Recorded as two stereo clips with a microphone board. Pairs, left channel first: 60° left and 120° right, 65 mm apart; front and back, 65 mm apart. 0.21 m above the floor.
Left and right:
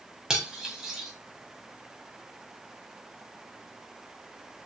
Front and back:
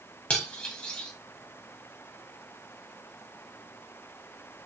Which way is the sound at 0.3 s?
50° right.